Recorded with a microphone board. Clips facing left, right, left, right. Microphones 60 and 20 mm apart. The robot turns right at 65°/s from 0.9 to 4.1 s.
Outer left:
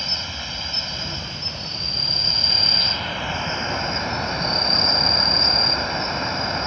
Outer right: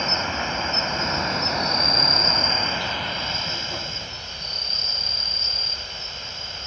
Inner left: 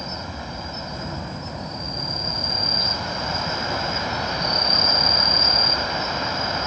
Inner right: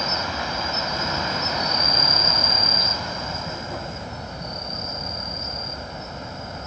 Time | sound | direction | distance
0.0 | an insect | 140° right | ?